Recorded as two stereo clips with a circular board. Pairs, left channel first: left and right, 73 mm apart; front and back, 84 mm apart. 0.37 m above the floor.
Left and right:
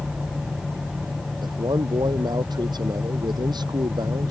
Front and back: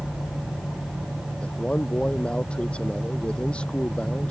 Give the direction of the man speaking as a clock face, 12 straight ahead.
3 o'clock.